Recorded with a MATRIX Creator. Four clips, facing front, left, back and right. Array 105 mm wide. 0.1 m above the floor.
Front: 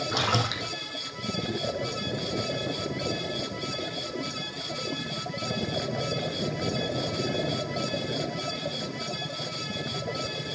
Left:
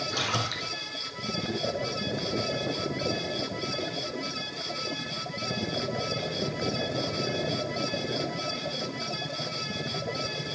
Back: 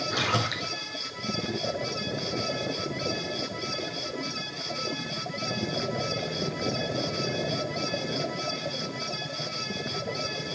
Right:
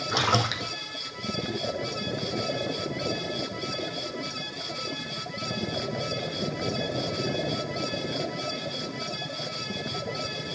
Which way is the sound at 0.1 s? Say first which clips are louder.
Right 10 dB, front 1 dB; 70° right.